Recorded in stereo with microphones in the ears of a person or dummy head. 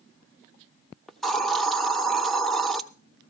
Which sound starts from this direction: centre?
A hiss, at 1.1 s.